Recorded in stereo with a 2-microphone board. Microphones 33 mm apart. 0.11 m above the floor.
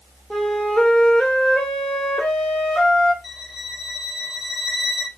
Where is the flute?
30° left (ahead or behind), 1.0 m.